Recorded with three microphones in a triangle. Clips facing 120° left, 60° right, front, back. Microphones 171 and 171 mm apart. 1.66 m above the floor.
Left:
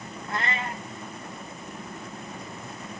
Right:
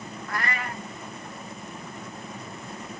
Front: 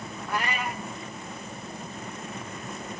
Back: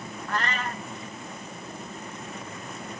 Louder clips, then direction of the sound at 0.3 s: Left 1 dB, even; 70° left.